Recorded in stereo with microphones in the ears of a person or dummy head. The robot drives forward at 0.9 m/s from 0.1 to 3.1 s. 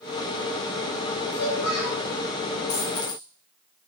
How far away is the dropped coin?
About 3.5 m.